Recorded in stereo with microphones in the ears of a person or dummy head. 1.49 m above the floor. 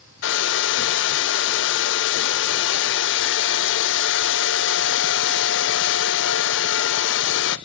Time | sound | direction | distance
0.2 | a hair dryer | 55° left (ahead or behind) | 0.5 m